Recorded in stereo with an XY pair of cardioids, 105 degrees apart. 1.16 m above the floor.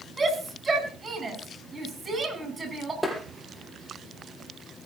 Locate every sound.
0.2 s a shout: 25° right, 9.5 m
3.0 s tapping: straight ahead, 7.5 m